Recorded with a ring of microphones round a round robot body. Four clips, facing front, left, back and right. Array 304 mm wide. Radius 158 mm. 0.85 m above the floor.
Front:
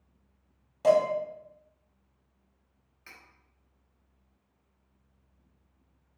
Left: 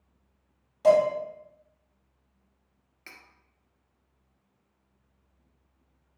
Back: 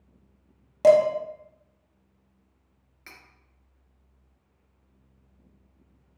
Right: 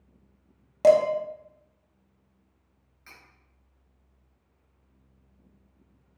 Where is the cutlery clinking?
125° left, 1.0 m.